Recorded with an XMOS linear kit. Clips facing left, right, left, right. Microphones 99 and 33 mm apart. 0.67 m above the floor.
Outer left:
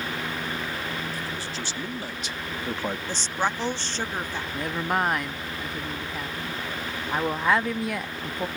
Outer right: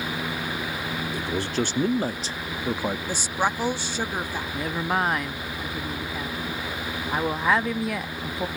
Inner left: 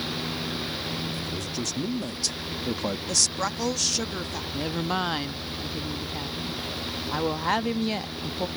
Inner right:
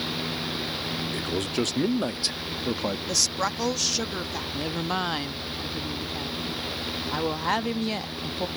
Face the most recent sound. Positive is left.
turn(degrees=0)  # may be behind; listen again after turning